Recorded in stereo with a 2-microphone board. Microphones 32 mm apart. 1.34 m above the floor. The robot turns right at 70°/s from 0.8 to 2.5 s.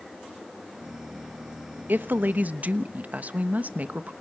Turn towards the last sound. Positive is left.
turn(degrees=-55)